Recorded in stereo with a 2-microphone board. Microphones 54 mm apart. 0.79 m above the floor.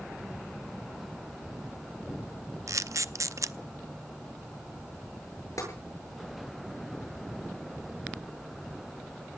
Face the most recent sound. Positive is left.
turn(degrees=75)  # may be behind; listen again after turning